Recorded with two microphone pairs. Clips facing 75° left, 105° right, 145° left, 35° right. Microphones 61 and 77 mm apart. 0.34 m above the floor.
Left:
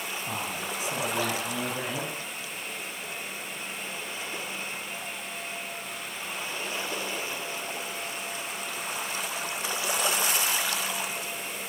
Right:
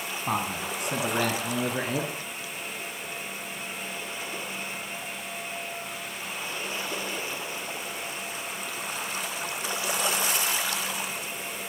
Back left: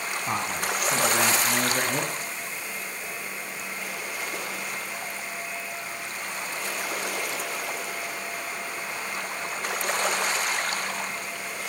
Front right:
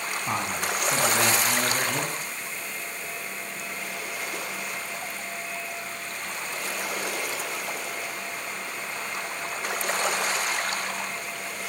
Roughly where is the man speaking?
Behind right.